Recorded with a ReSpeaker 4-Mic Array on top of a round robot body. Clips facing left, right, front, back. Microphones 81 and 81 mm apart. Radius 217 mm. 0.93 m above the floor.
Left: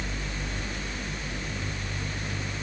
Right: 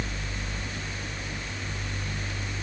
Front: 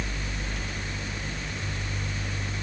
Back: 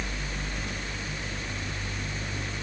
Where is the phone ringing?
I don't hear a phone ringing.